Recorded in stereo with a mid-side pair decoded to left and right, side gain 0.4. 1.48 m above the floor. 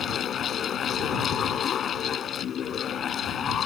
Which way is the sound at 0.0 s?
65° left.